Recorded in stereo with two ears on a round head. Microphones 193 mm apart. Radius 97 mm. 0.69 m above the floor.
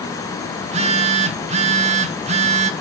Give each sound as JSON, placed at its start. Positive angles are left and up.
{"t": 0.6, "sound": "a phone buzzing", "side_deg": -30, "distance_m": 1.6}